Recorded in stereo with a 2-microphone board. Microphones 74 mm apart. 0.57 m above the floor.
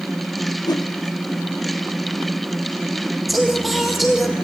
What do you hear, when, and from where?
0.7 s a whoosh: 60° left (ahead or behind), 0.5 m
3.3 s singing: centre (ahead or behind), 3.5 m